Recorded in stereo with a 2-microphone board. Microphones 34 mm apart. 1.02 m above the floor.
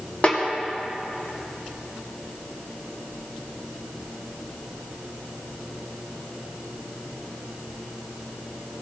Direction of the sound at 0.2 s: 40° left (ahead or behind).